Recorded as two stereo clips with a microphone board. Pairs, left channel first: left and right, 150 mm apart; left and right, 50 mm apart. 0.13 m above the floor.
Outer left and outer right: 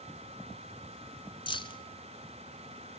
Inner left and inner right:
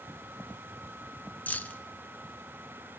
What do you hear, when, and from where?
1.5 s keys jangling: 35° left (ahead or behind), 1.0 m